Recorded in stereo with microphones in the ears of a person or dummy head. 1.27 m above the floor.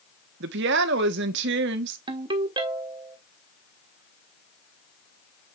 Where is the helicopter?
I don't hear a helicopter.